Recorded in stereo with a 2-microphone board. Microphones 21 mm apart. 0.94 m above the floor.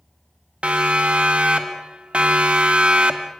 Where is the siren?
80° right, 3.5 m; by 3.3 s 65° right (ahead or behind), 1.8 m.